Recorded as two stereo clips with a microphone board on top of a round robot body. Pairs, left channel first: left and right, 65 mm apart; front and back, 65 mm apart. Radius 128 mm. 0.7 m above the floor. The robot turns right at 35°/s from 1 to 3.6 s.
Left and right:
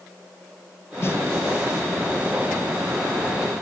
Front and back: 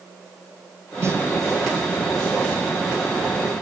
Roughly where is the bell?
I don't hear a bell.